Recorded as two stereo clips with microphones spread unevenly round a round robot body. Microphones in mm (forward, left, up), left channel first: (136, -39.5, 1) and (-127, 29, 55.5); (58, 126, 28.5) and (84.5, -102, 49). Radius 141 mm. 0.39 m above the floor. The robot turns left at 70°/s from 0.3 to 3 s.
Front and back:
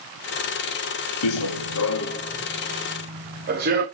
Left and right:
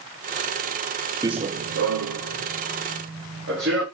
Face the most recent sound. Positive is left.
turn(degrees=-140)